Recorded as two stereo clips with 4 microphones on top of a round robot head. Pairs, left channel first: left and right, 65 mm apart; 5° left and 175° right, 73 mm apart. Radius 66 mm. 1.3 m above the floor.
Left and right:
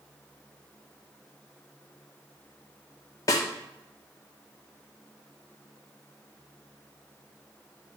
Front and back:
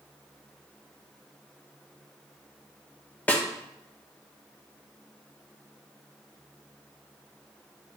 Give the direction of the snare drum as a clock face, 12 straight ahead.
10 o'clock.